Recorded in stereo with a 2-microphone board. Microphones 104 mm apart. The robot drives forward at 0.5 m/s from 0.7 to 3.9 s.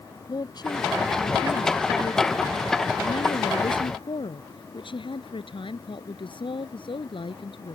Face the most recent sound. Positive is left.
turn(degrees=60)  # may be behind; listen again after turning